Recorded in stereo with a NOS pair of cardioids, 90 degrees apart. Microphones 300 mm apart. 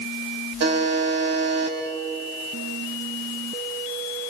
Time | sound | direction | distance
0.6 | a buzzer | 60° right | 4 m